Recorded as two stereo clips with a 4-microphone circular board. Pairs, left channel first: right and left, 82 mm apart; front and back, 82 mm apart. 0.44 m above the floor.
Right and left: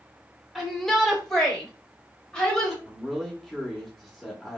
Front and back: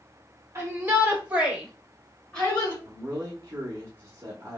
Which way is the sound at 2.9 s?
Straight behind.